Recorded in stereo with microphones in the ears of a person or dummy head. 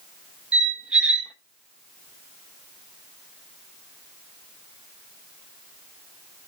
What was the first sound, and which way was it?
A squeak, 5° right (ahead or behind).